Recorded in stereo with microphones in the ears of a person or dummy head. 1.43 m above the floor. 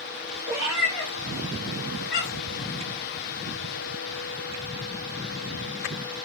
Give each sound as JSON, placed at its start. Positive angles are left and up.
{"t": 0.5, "sound": "a cat meowing", "side_deg": -20, "distance_m": 0.8}